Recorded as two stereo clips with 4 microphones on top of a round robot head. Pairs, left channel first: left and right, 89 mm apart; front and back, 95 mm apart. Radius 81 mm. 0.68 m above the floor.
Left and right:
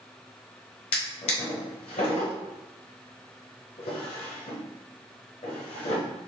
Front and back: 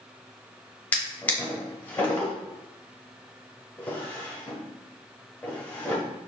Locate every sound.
0.9 s a drawer: 70° left, 1.0 m